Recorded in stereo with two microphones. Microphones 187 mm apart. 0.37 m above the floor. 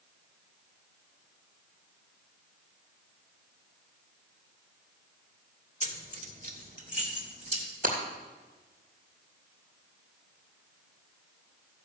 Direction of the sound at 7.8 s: 50° right (ahead or behind).